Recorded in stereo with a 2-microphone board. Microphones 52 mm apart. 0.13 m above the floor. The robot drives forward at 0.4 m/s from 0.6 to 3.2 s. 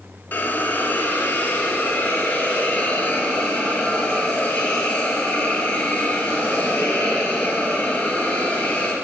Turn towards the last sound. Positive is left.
turn(degrees=25)  # may be behind; listen again after turning